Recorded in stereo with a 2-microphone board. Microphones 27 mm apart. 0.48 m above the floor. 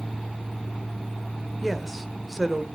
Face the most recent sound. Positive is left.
turn(degrees=0)  # may be behind; listen again after turning